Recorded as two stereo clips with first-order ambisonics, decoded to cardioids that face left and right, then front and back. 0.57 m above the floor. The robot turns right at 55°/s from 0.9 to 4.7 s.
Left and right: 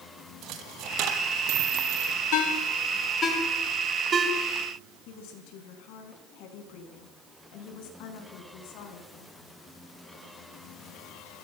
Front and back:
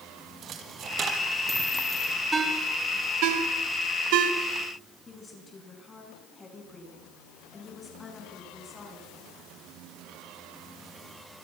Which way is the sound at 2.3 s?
100° left.